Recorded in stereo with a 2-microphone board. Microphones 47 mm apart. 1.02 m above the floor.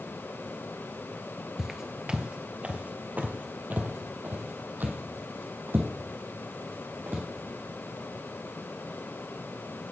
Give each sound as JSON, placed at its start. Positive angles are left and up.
{"t": 1.6, "sound": "footsteps", "side_deg": -10, "distance_m": 1.0}